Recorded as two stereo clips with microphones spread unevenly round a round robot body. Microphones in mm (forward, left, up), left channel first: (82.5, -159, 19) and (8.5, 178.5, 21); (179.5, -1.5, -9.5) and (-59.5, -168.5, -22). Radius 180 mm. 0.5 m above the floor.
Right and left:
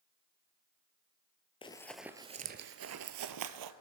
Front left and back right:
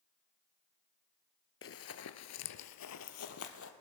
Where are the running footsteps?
5° right, 0.8 m; by 3.7 s 85° left, 1.1 m.